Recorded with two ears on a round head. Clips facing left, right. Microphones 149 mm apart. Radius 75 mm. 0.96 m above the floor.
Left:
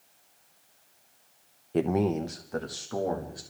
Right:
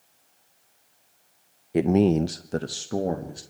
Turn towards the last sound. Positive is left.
turn(degrees=-30)  # may be behind; listen again after turning